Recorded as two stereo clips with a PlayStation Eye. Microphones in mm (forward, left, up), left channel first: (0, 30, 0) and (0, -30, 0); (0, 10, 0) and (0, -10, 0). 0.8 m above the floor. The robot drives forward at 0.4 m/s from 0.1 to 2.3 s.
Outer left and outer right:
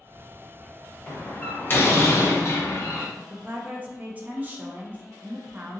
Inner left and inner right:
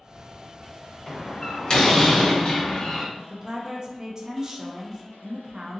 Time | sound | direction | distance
1.1 | a door slam | 30° left (ahead or behind) | 1.1 m
3.2 | a woman speaking | 30° right (ahead or behind) | 0.5 m